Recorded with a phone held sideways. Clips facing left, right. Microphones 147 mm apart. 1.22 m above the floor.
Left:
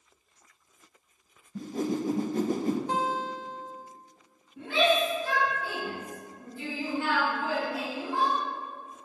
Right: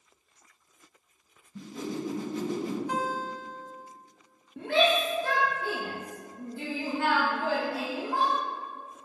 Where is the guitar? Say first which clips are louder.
Left 2 dB; 30° left (ahead or behind), 0.6 m.